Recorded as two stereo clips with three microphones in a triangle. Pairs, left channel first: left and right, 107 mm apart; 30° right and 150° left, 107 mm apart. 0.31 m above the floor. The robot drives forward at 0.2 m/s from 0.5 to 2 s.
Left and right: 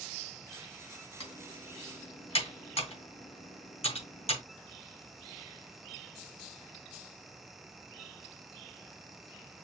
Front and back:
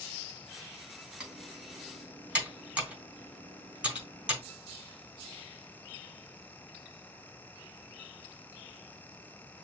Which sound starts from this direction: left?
Typing on a keyboard, at 1.2 s.